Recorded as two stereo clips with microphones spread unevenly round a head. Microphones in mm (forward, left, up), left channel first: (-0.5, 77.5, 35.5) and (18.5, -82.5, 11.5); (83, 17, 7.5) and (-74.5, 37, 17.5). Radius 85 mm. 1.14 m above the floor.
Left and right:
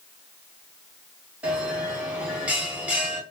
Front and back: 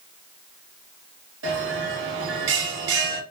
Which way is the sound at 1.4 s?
165° right.